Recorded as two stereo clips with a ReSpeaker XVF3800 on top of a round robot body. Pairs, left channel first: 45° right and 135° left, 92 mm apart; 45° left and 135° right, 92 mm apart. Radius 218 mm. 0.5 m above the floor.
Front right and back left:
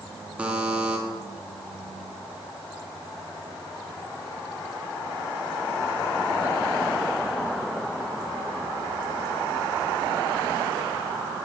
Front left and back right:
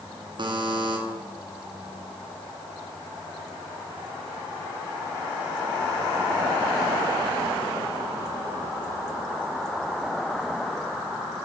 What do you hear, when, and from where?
0.4 s a buzzer: 150° right, 1.2 m